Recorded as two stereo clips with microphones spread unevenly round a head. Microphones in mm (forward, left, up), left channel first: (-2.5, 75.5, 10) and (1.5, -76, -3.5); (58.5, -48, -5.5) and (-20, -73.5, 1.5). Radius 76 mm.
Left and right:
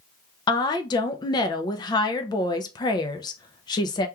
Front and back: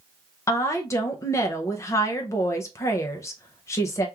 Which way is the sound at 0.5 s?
35° left.